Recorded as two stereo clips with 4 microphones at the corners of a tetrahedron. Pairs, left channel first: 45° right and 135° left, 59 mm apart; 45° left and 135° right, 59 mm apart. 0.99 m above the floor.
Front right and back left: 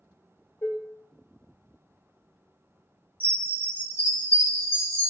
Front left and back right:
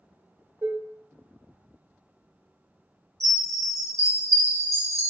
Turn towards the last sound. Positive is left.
turn(degrees=-100)